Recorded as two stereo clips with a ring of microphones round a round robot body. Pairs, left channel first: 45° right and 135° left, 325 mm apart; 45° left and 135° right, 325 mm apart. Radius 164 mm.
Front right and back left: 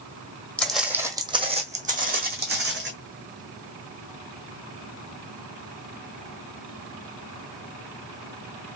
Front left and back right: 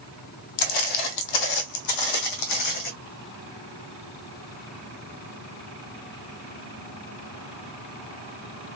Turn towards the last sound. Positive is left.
turn(degrees=75)